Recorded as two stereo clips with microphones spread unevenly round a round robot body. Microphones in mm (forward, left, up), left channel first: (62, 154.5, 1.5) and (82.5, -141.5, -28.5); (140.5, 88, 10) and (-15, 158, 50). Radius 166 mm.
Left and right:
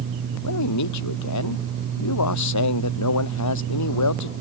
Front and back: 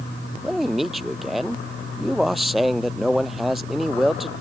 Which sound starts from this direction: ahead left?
A man speaking, at 0.4 s.